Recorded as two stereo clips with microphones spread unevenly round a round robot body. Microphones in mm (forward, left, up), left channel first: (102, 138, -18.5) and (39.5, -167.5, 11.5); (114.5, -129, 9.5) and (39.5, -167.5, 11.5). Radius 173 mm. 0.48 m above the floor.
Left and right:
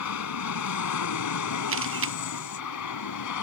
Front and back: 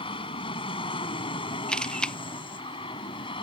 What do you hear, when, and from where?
0.0 s an aircraft: 50° left; by 3.4 s 55° left
1.7 s a camera shutter: 55° right